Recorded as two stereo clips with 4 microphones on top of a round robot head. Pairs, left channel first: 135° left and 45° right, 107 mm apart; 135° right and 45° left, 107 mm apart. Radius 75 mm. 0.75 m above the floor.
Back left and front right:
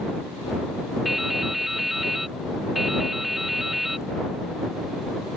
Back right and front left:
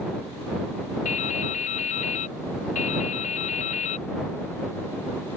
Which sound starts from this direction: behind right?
Dripping, at 1.1 s.